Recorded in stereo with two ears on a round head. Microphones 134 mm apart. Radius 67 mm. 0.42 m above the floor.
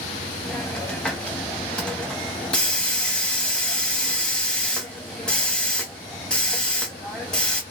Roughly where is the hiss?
Centre.